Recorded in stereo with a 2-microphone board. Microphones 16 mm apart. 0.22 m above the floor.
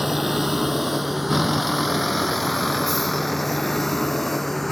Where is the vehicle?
20° right (ahead or behind); by 4.7 s 10° left (ahead or behind).